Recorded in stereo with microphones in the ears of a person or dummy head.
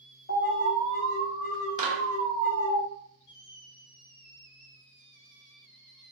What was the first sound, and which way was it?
An alarm, 35° left (ahead or behind).